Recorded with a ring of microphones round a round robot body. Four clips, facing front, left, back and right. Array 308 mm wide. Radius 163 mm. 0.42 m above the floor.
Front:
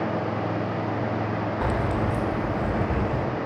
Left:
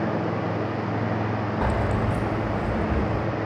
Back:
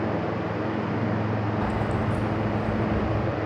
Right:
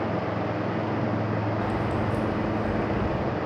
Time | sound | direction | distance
1.6 | keys jangling | 45° left | 1.1 m